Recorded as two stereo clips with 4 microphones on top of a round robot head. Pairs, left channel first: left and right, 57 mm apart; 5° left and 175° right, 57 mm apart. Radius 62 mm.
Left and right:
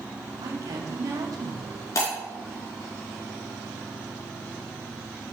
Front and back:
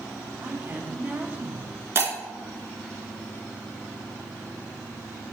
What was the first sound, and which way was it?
A woman speaking, 115° right.